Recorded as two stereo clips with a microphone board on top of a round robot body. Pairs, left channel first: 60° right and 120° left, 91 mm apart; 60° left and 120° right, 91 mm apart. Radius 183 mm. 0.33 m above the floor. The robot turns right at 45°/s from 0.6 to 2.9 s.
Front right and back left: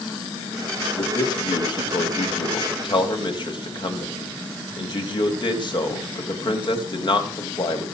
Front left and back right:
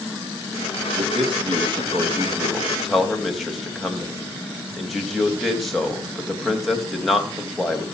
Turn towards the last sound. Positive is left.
turn(degrees=-30)